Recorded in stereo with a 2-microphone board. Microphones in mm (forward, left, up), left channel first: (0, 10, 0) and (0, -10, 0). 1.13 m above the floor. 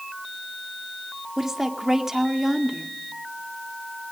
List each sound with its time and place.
1.4 s a woman speaking: 15° right (ahead or behind), 2 m